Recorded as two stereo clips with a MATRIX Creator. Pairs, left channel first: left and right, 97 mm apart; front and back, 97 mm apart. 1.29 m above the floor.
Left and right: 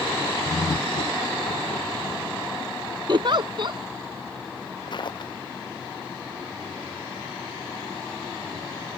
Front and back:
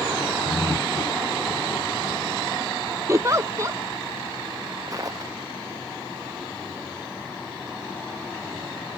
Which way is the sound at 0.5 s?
55° left.